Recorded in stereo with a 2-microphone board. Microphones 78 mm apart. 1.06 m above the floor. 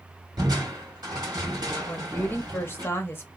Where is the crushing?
60° right (ahead or behind), 2 m.